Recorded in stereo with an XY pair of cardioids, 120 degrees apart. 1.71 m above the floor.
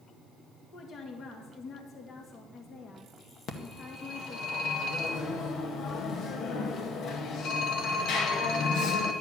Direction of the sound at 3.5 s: 70° left.